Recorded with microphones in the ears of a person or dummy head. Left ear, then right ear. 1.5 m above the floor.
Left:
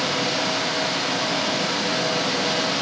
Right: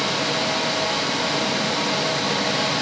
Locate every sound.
0.0 s a fan: 55° left (ahead or behind), 4 m